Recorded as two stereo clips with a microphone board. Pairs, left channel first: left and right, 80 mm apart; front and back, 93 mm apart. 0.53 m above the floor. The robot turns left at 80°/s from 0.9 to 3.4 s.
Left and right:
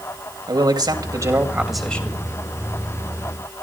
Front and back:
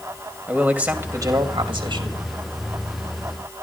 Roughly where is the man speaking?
Right.